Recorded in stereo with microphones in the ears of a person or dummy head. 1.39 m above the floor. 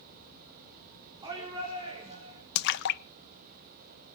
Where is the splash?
60° left (ahead or behind), 0.7 m.